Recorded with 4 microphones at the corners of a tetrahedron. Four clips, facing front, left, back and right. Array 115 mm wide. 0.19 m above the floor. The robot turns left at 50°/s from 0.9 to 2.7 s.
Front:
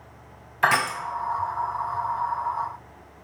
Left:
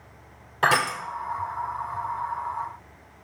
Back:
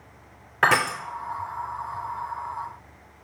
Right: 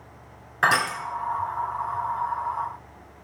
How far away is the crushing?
About 2.0 m.